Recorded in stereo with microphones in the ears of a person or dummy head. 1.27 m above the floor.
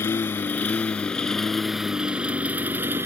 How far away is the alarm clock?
No alarm clock in this recording.